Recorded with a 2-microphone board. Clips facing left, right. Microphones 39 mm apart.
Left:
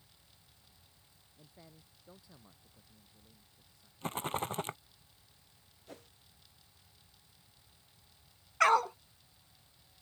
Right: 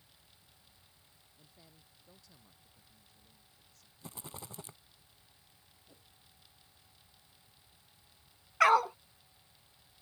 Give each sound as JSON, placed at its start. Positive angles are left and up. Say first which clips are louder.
{"t": 1.4, "sound": "a man speaking", "louder": "left 5 dB", "side_deg": 25}
{"t": 4.0, "sound": "a rattle", "louder": "left 13 dB", "side_deg": 60}
{"t": 5.9, "sound": "a whoosh", "louder": "left 13 dB", "side_deg": 80}
{"t": 8.6, "sound": "a dog barking", "louder": "right 1 dB", "side_deg": -5}